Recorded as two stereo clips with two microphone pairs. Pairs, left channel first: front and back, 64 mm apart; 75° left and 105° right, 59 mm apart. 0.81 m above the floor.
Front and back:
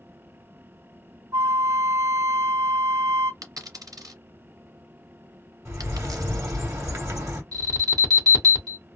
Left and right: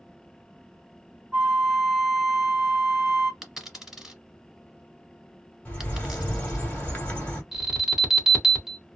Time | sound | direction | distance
1.3 | a flute | 175° left | 2 m
3.4 | a dropped coin | 170° left | 2.0 m
5.7 | a bird | 140° left | 1.6 m
7.5 | an alarm | 175° left | 1.8 m